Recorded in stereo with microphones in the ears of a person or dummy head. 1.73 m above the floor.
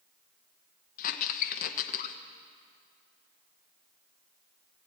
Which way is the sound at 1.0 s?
50° left (ahead or behind).